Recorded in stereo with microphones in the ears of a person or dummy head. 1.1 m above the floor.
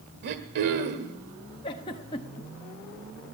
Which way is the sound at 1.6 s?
25° left (ahead or behind).